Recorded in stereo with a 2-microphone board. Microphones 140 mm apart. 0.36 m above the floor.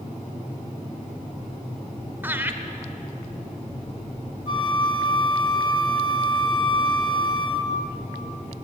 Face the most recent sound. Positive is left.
turn(degrees=30)  # may be behind; listen again after turning